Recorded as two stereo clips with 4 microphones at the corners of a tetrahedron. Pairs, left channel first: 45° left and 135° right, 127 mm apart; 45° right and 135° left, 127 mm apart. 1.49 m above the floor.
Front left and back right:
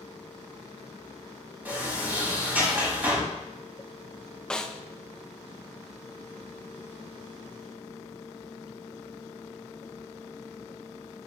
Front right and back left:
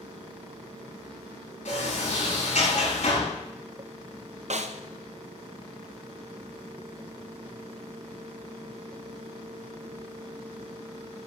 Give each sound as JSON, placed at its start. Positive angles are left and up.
{"t": 1.6, "sound": "a sliding door", "azimuth_deg": -60, "distance_m": 4.5}
{"t": 4.5, "sound": "a snare drum", "azimuth_deg": 125, "distance_m": 0.5}